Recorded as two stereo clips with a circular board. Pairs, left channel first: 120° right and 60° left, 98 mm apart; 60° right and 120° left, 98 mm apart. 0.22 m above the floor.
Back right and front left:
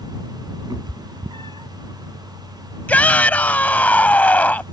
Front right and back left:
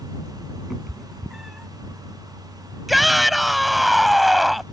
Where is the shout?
150° right.